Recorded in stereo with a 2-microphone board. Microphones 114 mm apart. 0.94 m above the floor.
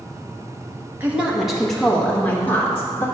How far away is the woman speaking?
About 1.0 m.